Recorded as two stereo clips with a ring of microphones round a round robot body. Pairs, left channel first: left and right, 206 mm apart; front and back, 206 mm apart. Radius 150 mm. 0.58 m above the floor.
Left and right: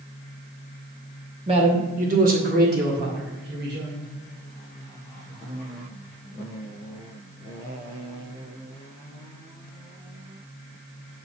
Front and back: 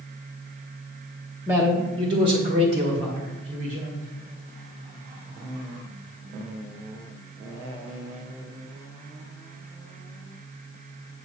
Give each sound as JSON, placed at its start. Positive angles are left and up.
{"t": 1.5, "sound": "a man speaking", "azimuth_deg": -110, "distance_m": 0.9}